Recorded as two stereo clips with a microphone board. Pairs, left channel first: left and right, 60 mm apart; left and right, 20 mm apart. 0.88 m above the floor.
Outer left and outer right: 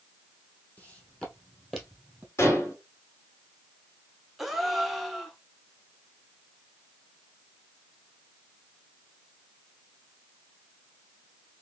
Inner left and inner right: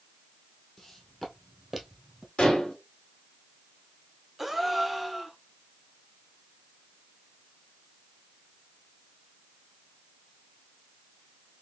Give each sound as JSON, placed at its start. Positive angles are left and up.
{"t": 0.8, "sound": "footsteps", "side_deg": 25, "distance_m": 1.4}
{"t": 2.4, "sound": "dishes clattering", "side_deg": 60, "distance_m": 1.9}
{"t": 4.4, "sound": "a gasp", "side_deg": 0, "distance_m": 0.6}